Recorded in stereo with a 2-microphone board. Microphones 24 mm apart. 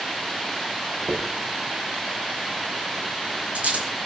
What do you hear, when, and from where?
1.1 s a dropped coin: 65° right (ahead or behind), 4 m